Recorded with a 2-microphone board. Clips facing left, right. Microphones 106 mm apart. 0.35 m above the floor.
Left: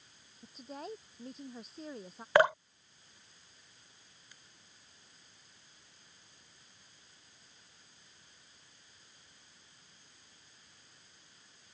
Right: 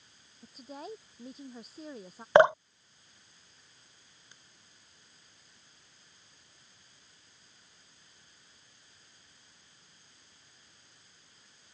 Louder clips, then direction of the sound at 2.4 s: Right 6 dB; 25° right (ahead or behind).